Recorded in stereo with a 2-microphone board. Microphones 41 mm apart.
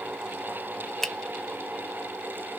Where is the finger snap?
5° left (ahead or behind), 0.5 m.